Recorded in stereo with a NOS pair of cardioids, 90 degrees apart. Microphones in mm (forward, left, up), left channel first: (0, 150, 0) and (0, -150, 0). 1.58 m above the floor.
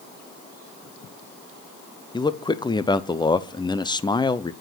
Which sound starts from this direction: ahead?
A man speaking, at 2.1 s.